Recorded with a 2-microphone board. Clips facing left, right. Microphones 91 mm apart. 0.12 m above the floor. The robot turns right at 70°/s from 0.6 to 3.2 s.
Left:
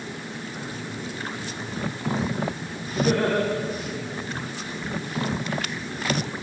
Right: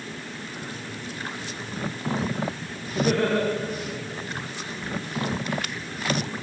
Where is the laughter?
15° right (ahead or behind), 7 m; by 3.4 s 5° left (ahead or behind), 7 m.